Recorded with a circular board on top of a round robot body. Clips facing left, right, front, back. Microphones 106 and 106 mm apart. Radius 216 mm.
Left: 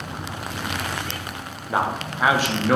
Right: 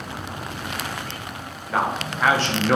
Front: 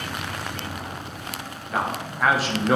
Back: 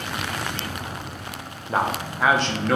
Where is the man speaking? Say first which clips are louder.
Even, back 3 dB; 150° left, 0.9 m; by 2.8 s 10° left, 0.8 m.